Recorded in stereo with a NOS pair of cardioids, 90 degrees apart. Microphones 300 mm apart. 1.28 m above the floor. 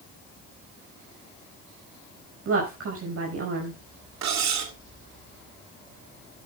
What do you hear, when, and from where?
2.5 s a woman speaking: 50° right, 5.5 m
4.2 s cutlery clinking: 65° right, 2.5 m